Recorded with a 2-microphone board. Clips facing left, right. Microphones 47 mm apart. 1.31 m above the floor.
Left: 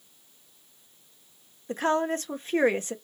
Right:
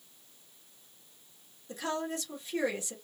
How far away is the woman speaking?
About 0.8 m.